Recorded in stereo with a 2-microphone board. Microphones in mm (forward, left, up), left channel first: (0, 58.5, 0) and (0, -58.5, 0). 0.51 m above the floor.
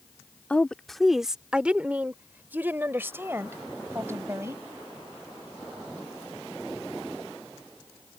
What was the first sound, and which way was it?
A woman speaking, 10° left (ahead or behind).